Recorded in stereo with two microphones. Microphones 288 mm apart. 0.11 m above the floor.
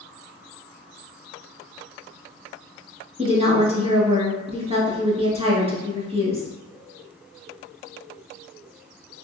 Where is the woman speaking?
20° right (ahead or behind), 1.2 m.